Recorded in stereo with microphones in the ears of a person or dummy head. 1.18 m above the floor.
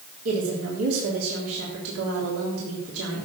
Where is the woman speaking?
80° right, 3.5 m.